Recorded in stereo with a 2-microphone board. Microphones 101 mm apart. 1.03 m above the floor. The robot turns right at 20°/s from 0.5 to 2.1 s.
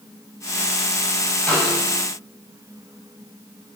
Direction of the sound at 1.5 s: 10° left (ahead or behind).